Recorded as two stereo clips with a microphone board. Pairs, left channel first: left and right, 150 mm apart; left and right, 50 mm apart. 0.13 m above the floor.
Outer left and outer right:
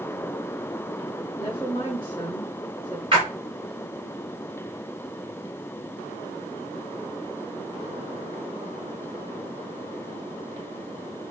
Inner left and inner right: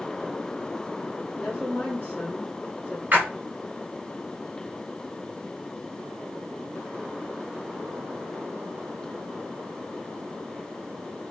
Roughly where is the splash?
Right.